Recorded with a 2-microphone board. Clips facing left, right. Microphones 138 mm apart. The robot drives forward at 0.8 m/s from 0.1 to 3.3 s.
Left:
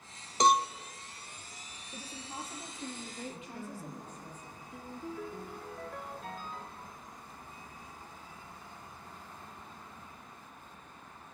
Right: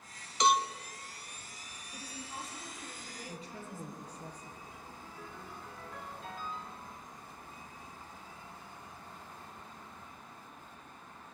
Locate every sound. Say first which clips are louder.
0.4 s a cowbell: left 2 dB; 40° left (ahead or behind), 0.6 m
1.9 s a woman speaking: left 1 dB; 30° left (ahead or behind), 4 m; by 4.3 s 40° left (ahead or behind), 3.5 m
3.3 s a woman speaking: left 2 dB; 35° right (ahead or behind), 5.5 m
4.7 s a ringtone: left 8 dB; 50° left (ahead or behind), 1.3 m